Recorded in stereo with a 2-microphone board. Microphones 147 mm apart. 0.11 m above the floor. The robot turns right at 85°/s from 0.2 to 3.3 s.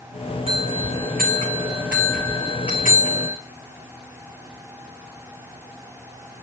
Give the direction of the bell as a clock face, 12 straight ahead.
5 o'clock.